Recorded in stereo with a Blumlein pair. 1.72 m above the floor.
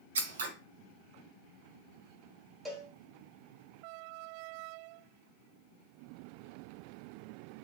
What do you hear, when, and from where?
0.1 s scissors: 65° right, 0.7 m
2.6 s a cowbell: 10° right, 1.1 m